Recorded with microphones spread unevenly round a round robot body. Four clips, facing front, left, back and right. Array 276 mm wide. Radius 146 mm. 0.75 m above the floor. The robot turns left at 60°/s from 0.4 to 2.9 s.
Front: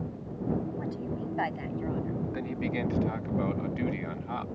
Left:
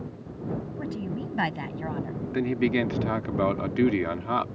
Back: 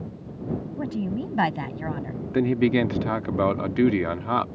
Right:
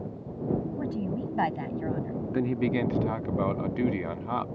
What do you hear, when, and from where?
0.8 s a woman speaking: 150° right; by 2.2 s 125° left
2.3 s a man speaking: 170° right; by 4.5 s 155° left